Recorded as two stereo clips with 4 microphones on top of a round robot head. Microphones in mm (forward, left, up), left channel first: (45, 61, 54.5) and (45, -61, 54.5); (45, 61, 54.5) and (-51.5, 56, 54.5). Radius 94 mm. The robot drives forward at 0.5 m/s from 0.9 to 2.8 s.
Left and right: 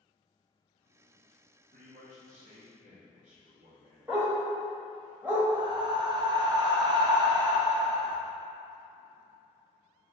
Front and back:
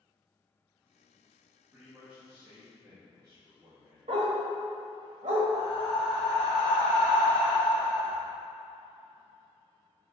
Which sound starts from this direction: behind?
A dog barking, at 4.1 s.